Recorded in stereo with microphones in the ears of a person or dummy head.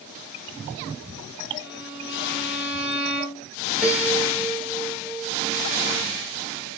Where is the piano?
10° right (ahead or behind), 2 m.